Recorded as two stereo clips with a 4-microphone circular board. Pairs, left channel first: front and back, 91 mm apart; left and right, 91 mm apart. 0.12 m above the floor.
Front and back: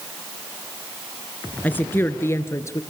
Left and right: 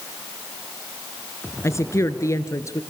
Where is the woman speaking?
60° left, 1.5 m; by 2.8 s 45° left, 1.9 m.